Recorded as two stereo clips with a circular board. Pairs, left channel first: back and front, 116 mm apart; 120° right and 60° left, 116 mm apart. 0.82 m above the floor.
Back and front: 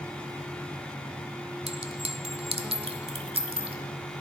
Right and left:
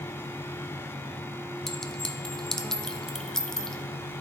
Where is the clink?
35° right, 0.9 m.